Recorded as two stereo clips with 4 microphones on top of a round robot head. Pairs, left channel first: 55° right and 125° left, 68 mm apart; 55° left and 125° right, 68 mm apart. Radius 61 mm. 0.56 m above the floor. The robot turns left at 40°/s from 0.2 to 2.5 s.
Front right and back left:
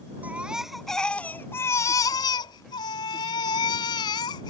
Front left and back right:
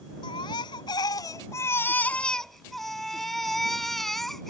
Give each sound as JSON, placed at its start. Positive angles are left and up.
{"t": 0.2, "sound": "a baby crying", "azimuth_deg": 55}